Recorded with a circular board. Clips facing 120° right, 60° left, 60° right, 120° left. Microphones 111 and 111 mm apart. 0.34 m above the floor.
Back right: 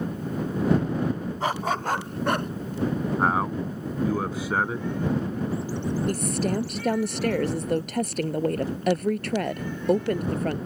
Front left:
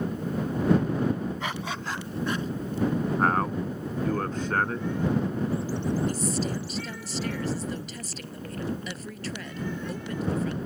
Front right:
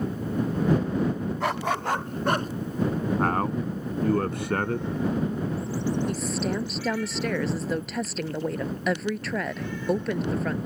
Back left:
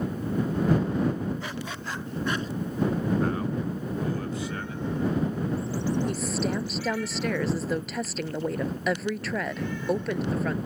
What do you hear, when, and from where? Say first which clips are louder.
1.4 s a dog barking: back right 7 dB, front right 9 dB; 70° right; by 2.5 s 95° right
3.2 s a man speaking: back right 1 dB, front right 2 dB; 40° right
6.1 s a woman speaking: back right 3 dB, even; 150° right